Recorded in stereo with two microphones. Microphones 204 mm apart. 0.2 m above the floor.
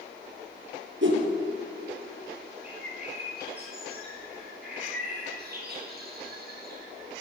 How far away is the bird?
About 8 m.